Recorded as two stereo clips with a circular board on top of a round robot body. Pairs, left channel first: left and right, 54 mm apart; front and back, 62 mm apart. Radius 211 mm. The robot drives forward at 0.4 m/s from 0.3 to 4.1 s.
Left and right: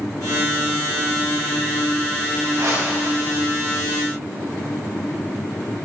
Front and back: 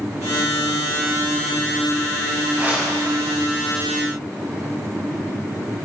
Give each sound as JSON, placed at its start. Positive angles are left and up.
{"t": 2.5, "sound": "a whoosh", "azimuth_deg": -120, "distance_m": 8.0}